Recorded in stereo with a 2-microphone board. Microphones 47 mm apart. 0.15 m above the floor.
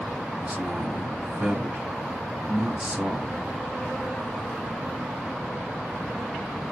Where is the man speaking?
30° right (ahead or behind), 1.4 m.